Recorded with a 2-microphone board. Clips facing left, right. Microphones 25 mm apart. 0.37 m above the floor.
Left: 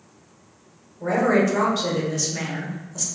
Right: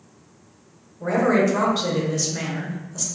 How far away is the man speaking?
About 0.9 m.